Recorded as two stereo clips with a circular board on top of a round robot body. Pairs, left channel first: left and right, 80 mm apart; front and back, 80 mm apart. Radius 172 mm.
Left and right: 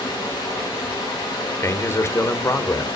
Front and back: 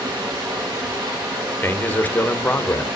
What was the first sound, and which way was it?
Running water, 140° left.